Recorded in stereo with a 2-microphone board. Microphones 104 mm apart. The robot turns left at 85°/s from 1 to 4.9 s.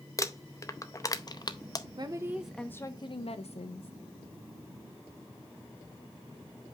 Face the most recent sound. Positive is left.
turn(degrees=-25)